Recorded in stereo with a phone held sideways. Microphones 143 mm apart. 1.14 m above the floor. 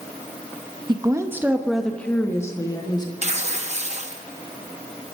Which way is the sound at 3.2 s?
50° right (ahead or behind).